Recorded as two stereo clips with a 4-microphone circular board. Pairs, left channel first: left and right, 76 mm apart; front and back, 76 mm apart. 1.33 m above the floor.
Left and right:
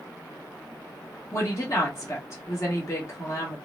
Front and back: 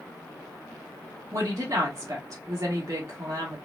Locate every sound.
1.3 s a woman speaking: 140° left, 2.5 m